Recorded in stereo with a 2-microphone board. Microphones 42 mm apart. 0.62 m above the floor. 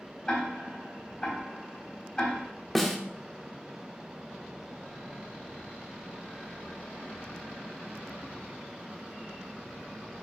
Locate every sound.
0.3 s ticking: 25° left (ahead or behind), 4 m
2.8 s a snare drum: centre (ahead or behind), 1.0 m